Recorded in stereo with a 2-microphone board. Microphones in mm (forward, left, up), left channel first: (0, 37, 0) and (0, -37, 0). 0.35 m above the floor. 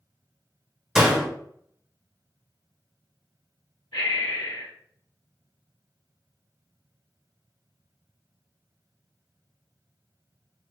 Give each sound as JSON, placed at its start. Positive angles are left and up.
{"t": 0.9, "sound": "a door slam", "side_deg": -5, "distance_m": 1.0}
{"t": 3.9, "sound": "breathing", "side_deg": 65, "distance_m": 1.9}